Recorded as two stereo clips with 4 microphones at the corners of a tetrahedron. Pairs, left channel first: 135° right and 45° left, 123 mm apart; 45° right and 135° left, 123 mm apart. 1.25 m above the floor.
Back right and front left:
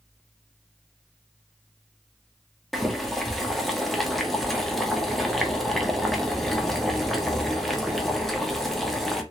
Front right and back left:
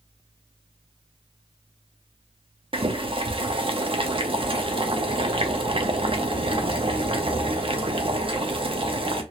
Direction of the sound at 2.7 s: 140° left.